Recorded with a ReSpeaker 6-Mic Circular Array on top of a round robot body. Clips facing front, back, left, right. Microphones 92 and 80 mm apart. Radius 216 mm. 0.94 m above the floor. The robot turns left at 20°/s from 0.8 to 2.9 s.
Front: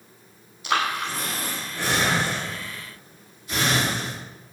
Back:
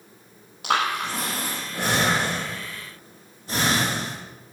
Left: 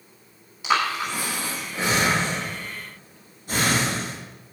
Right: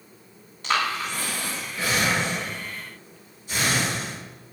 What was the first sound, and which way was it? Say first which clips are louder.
Breathing: back 1 dB, left 2 dB; 170° left.